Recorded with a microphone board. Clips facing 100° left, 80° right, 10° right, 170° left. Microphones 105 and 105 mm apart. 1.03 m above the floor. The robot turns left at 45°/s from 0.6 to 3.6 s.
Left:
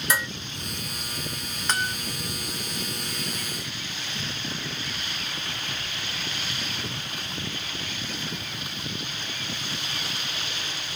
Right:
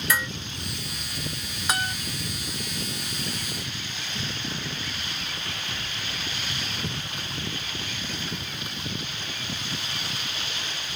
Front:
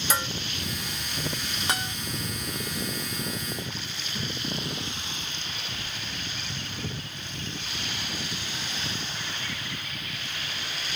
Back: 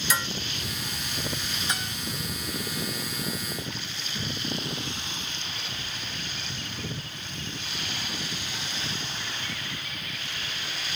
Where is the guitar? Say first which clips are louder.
Even, front 4 dB; straight ahead, 2 m; by 1.9 s 10° right, 2 m.